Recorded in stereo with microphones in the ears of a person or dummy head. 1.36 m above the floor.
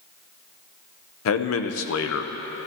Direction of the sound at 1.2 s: 70° left (ahead or behind).